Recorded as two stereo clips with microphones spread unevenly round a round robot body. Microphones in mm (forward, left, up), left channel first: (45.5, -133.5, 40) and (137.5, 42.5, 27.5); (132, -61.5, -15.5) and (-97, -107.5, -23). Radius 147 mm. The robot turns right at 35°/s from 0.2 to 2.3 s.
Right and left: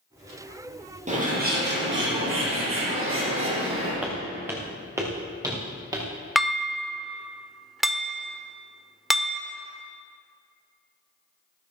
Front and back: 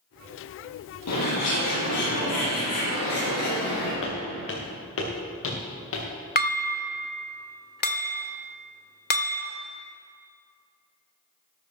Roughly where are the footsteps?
Ahead.